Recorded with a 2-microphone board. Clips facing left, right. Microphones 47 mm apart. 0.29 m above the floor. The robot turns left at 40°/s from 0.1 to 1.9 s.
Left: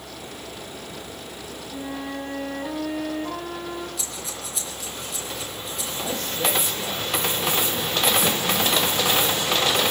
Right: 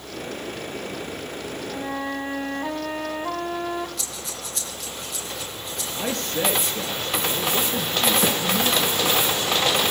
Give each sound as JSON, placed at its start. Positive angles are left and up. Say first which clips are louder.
{"t": 1.7, "sound": "a flute", "louder": "right 2 dB", "side_deg": -20, "distance_m": 2.5}
{"t": 4.0, "sound": "breathing", "louder": "even", "side_deg": 0, "distance_m": 8.0}
{"t": 5.9, "sound": "a man speaking", "louder": "right 3 dB", "side_deg": -65, "distance_m": 4.5}
{"t": 8.2, "sound": "a snare drum", "louder": "right 1 dB", "side_deg": -50, "distance_m": 7.0}